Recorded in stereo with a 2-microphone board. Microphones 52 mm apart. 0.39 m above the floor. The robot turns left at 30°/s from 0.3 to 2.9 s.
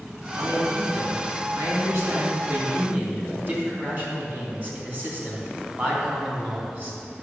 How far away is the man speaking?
About 3.5 m.